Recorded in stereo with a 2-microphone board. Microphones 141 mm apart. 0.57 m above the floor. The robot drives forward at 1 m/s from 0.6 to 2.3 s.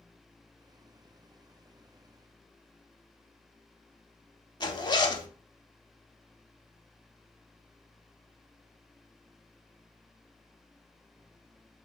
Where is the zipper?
30° left (ahead or behind), 0.6 m.